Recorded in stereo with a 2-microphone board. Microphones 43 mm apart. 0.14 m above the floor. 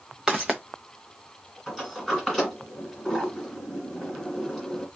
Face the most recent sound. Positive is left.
turn(degrees=5)  # may be behind; listen again after turning